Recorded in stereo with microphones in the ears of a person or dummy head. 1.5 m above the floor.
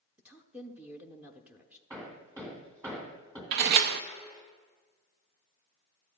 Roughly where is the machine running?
I don't hear a machine running.